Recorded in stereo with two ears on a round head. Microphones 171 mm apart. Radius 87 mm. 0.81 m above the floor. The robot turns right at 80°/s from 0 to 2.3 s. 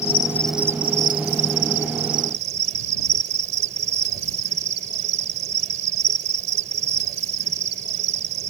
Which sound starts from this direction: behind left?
An insect, at 0.0 s.